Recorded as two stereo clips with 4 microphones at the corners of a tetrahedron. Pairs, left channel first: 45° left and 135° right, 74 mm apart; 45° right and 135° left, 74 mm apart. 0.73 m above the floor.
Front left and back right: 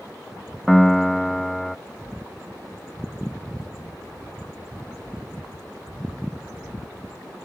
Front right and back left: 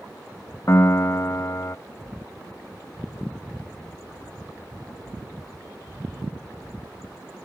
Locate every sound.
0.7 s a piano: 40° right